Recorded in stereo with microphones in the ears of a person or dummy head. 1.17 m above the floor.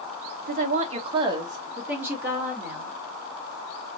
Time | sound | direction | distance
0.5 | a woman speaking | 45° right (ahead or behind) | 0.8 m